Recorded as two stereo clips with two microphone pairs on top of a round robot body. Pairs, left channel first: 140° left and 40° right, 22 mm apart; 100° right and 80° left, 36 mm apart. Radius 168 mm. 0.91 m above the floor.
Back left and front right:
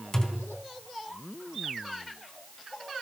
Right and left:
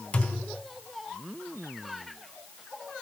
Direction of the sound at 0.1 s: 155° right.